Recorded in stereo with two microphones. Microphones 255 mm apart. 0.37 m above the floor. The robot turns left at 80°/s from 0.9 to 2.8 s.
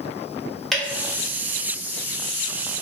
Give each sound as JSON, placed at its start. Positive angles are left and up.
{"t": 0.7, "sound": "dripping", "side_deg": 0, "distance_m": 1.2}